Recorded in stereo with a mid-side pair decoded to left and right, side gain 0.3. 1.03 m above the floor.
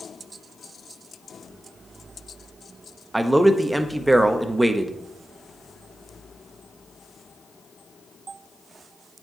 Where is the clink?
No clink in this recording.